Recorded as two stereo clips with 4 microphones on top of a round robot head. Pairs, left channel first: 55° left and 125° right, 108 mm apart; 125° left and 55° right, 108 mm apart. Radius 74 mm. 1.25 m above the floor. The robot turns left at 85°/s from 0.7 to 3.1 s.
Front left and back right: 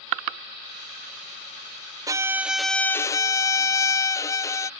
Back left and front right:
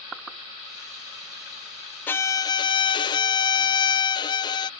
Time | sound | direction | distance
2.1 | a violin | 170° right | ?